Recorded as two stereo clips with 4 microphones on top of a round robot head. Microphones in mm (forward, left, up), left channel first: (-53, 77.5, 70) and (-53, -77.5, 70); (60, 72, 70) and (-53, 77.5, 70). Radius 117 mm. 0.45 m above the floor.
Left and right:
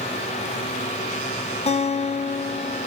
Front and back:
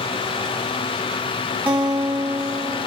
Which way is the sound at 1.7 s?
115° left.